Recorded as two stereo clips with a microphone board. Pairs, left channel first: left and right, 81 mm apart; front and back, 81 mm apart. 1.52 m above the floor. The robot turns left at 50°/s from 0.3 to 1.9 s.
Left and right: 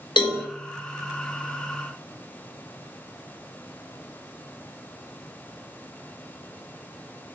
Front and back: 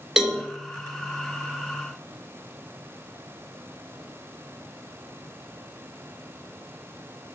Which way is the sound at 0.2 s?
95° left.